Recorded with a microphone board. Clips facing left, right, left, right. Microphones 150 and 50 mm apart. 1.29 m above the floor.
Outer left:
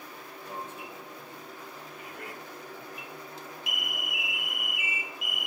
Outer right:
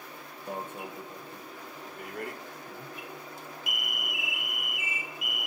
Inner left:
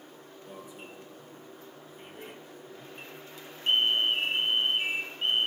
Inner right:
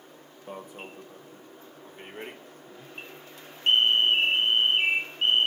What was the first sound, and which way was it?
An alarm, 50° right (ahead or behind).